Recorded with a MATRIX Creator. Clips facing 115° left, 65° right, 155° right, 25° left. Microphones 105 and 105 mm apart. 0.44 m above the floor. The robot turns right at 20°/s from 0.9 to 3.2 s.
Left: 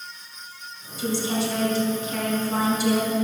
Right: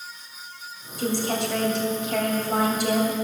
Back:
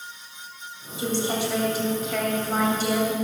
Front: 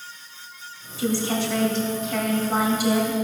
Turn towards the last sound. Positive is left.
turn(degrees=-45)